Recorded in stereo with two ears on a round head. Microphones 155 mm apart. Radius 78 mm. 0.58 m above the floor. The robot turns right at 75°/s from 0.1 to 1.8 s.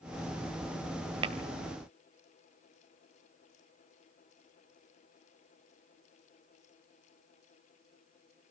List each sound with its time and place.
1.2 s tapping: 30° right (ahead or behind), 1.3 m; by 1.4 s 40° right (ahead or behind), 1.3 m